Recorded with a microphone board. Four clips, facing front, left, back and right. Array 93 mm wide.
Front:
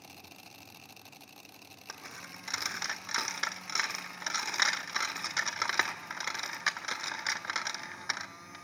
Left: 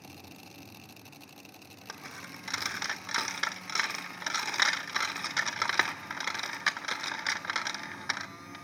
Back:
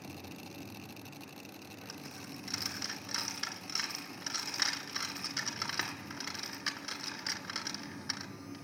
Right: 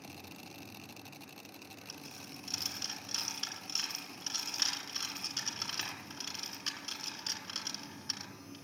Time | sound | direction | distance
1.9 | a dropped coin | 60° left | 0.8 m